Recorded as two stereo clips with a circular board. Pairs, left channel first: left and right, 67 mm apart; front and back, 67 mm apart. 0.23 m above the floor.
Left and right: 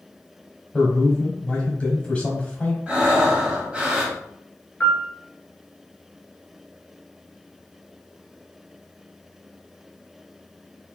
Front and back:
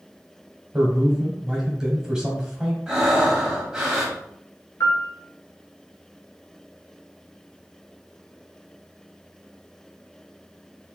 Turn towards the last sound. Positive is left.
turn(degrees=30)